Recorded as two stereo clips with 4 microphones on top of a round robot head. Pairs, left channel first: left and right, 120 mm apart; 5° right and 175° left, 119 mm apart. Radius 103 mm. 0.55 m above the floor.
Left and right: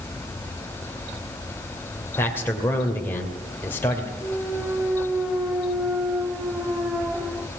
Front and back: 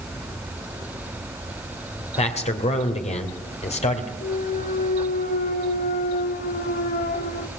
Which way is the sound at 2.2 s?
15° left.